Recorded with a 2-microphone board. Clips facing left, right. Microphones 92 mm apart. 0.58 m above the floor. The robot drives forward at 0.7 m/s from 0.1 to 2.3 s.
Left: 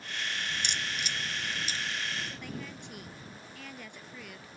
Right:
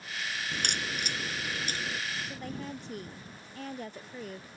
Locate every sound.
0.5 s a crack: 60° right (ahead or behind); by 2.0 s 50° right (ahead or behind)
2.3 s a woman speaking: 40° right (ahead or behind)